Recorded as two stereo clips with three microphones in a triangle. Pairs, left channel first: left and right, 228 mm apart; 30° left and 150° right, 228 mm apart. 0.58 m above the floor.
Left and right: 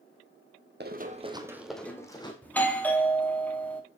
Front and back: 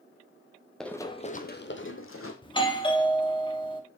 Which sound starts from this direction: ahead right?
Running footsteps, at 0.8 s.